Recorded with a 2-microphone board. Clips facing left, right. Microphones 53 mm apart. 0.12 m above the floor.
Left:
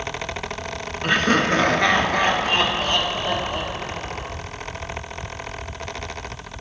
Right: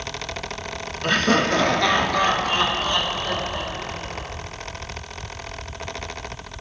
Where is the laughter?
10° left (ahead or behind), 1.4 m; by 4.3 s 60° left (ahead or behind), 4 m.